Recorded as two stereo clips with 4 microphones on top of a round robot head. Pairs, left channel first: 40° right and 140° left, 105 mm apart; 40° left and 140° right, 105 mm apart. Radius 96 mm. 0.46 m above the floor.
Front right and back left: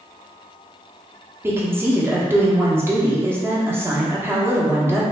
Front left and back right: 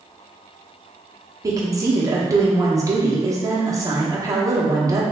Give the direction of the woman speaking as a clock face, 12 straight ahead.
6 o'clock.